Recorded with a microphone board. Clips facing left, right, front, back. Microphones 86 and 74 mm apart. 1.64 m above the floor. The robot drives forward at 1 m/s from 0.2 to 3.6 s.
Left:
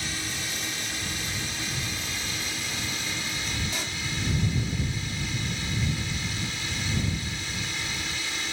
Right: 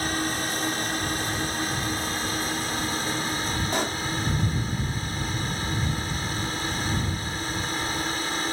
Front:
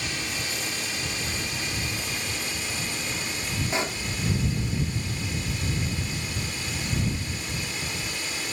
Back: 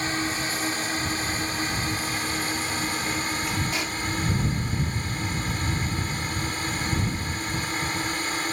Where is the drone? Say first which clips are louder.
Right 8 dB, back 5 dB; 130° right; by 8.5 s 140° right.